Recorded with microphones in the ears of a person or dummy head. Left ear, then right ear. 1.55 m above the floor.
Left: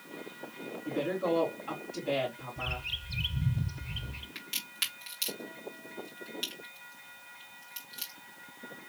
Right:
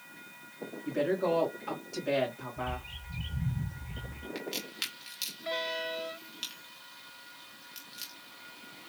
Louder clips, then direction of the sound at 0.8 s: Right 2 dB; 75° right (ahead or behind).